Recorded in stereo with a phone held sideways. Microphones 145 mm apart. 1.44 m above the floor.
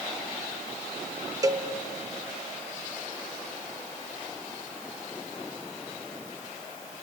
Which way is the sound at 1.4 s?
25° right (ahead or behind).